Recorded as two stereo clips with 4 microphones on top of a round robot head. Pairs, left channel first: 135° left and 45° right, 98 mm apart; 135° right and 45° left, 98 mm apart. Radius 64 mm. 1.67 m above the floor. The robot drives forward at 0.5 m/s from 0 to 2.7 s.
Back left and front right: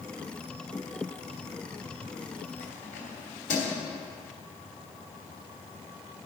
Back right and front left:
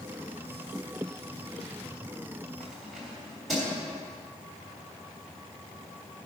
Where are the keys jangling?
135° left, 3 m.